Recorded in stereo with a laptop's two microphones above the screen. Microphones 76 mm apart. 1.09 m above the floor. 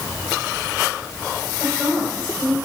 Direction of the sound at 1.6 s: 10° right (ahead or behind).